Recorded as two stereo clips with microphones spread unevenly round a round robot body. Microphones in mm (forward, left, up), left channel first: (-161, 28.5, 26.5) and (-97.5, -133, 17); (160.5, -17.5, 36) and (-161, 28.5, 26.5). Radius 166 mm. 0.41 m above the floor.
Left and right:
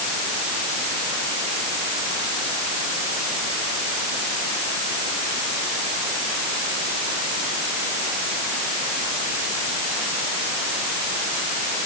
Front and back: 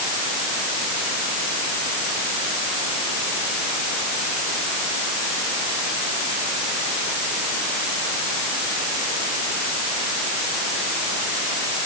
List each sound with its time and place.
Only background noise.